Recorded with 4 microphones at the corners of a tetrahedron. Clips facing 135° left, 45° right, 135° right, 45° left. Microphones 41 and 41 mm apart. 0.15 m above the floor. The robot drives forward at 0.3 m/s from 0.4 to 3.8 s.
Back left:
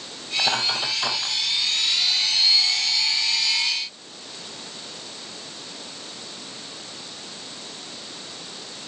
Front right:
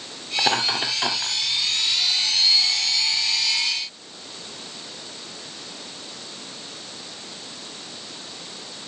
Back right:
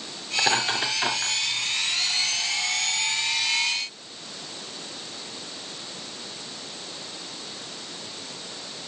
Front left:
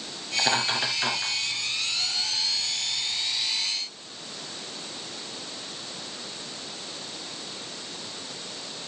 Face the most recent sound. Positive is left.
turn(degrees=-75)